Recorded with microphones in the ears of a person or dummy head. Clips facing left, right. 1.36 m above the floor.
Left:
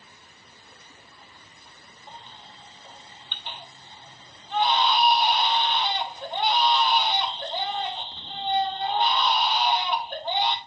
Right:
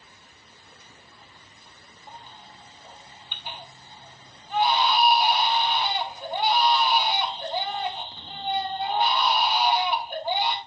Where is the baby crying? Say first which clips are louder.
Right 1 dB; 10° right (ahead or behind), 1.4 m.